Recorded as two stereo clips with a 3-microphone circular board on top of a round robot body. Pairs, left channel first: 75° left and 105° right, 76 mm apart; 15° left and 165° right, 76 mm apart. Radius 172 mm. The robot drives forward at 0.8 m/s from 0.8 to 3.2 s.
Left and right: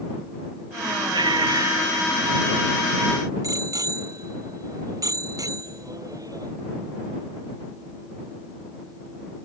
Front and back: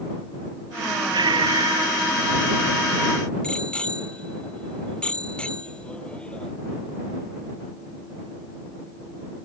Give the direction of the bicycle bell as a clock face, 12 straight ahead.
2 o'clock.